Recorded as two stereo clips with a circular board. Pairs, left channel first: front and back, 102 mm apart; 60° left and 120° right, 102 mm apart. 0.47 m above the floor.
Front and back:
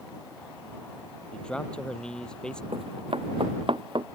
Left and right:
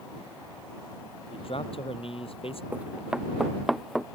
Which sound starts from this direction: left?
A man speaking, at 1.3 s.